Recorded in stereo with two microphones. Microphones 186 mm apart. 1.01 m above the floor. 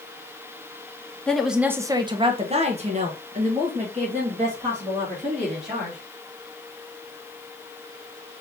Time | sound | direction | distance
1.3 | a woman speaking | 5° left (ahead or behind) | 0.6 m